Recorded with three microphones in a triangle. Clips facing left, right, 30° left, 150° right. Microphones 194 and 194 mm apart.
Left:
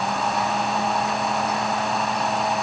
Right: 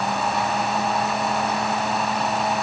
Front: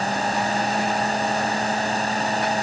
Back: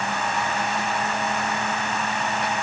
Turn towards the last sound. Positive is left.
No sound to turn to.